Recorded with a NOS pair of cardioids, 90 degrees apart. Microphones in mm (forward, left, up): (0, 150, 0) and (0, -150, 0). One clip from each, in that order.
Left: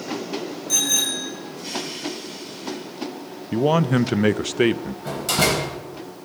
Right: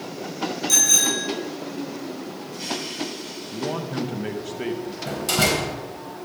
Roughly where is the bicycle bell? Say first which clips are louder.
Right 3 dB; ahead right.